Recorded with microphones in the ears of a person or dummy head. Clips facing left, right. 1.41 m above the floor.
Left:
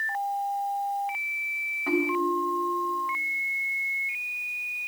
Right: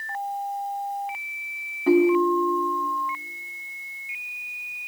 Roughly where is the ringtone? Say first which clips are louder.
Right 8 dB; right.